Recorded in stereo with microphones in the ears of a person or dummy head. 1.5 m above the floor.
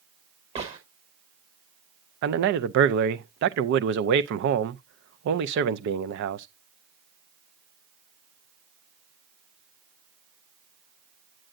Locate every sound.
0.6 s a gunshot: 30° right (ahead or behind), 1.3 m
2.2 s a man speaking: 60° right (ahead or behind), 0.6 m